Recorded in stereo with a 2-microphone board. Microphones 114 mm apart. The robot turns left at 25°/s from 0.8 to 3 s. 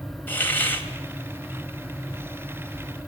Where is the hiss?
20° left (ahead or behind), 2.5 m; by 0.9 s 15° left (ahead or behind), 2.5 m.